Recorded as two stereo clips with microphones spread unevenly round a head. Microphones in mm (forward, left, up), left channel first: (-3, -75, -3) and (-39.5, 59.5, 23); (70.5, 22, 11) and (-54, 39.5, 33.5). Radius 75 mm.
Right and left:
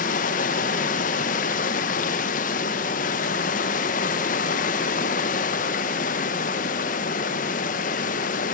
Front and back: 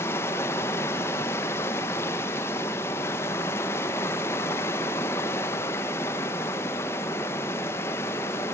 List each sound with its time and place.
0.0 s running water: 90° right, 0.7 m